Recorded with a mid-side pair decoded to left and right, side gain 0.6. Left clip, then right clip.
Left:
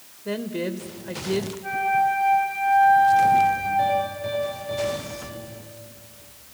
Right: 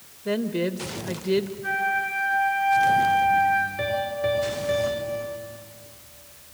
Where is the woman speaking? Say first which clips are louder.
Right 2 dB; 25° right, 1.8 m.